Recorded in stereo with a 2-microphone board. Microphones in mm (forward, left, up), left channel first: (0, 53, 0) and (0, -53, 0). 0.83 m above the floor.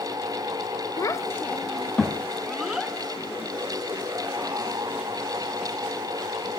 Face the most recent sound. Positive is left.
turn(degrees=-15)  # may be behind; listen again after turning